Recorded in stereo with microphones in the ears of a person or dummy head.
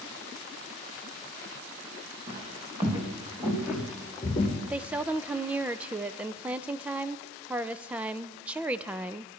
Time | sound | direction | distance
2.3 | footsteps | 25° right (ahead or behind) | 3.5 m
4.7 | a woman speaking | 10° right (ahead or behind) | 0.6 m